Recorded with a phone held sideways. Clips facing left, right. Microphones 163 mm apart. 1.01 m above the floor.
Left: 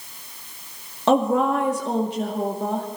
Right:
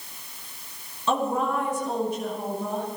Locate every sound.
1.1 s a woman speaking: 70° left (ahead or behind), 1.9 m